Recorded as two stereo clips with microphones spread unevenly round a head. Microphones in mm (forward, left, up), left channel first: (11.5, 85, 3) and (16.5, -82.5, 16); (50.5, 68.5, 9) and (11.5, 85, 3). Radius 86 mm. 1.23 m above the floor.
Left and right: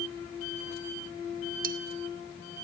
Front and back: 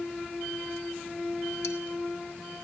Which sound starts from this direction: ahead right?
Cutlery clinking, at 1.6 s.